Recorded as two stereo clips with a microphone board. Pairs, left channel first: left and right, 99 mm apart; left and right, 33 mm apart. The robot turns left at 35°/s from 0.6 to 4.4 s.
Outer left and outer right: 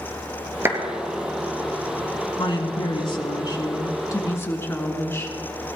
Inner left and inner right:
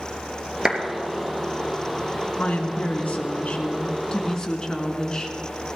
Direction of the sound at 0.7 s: 30° right (ahead or behind).